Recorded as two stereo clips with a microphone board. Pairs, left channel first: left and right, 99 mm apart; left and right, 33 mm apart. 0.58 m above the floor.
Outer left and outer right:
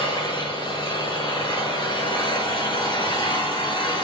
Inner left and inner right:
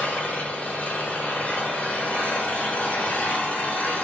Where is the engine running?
55° left (ahead or behind), 6 m.